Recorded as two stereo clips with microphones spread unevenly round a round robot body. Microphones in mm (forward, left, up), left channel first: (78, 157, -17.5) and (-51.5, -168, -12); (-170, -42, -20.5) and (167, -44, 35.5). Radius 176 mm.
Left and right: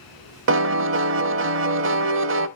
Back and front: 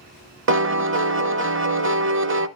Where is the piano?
55° right, 0.6 m.